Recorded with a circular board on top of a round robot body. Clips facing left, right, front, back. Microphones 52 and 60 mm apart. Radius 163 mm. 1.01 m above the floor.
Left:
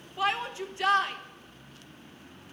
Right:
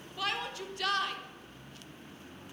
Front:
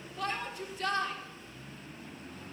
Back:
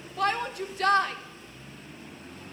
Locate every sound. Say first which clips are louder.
0.2 s a shout: left 6 dB, back 8 dB; 155° left, 1.8 m